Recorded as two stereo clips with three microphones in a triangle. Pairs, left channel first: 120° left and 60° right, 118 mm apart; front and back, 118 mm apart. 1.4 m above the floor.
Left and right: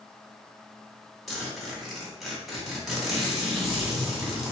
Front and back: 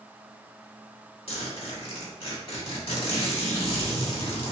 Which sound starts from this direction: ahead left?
A zipper, at 1.3 s.